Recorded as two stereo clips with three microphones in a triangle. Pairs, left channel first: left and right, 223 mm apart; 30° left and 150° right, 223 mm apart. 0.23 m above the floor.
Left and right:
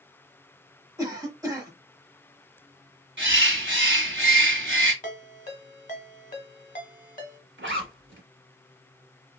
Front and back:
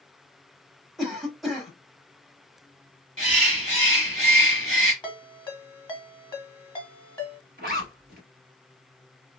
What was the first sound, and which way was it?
A cough, 60° right.